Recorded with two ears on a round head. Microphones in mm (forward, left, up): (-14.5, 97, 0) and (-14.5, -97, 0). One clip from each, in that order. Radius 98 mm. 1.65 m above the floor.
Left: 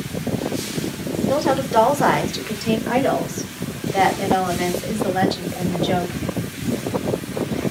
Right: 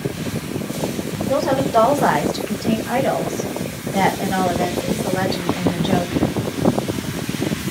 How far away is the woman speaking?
About 7 m.